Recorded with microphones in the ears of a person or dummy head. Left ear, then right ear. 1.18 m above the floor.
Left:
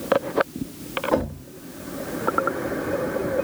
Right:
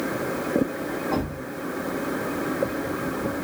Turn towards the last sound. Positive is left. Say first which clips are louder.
# left 4 dB
turn(degrees=15)  # may be behind; listen again after turning